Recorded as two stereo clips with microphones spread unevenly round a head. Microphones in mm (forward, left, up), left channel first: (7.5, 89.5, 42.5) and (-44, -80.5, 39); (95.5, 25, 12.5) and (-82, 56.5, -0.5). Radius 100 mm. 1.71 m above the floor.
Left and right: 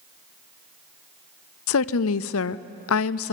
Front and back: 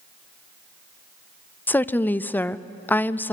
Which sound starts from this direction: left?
A woman speaking, at 1.7 s.